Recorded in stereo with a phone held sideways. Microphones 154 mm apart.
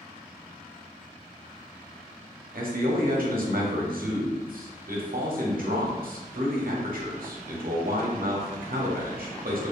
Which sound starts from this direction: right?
A man speaking, at 2.5 s.